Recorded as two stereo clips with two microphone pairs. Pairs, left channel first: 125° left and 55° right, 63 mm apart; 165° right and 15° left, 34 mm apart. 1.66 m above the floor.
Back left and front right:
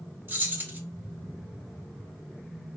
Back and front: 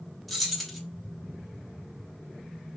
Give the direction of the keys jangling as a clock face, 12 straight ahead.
3 o'clock.